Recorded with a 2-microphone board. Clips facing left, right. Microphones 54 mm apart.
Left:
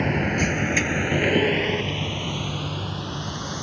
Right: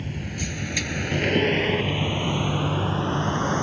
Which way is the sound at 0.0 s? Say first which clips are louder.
Left 10 dB; 65° left (ahead or behind).